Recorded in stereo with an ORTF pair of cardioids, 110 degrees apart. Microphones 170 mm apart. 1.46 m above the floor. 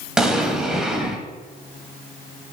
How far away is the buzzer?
No buzzer in this recording.